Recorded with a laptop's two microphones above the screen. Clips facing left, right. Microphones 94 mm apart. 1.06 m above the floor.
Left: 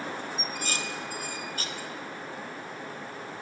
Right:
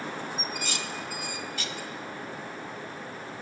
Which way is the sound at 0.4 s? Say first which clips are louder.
Even; 40° left (ahead or behind).